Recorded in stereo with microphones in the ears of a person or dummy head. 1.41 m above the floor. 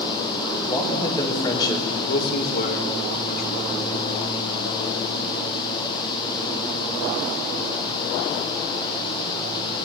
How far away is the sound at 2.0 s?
About 3.5 m.